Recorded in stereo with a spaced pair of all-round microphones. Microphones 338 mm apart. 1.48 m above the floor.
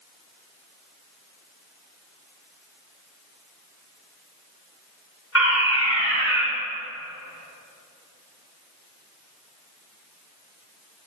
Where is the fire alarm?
40° left (ahead or behind), 8 m.